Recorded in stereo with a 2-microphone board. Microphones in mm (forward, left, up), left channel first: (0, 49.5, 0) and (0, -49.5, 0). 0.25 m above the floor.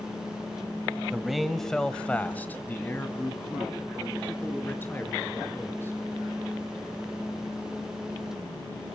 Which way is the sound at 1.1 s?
5° right (ahead or behind).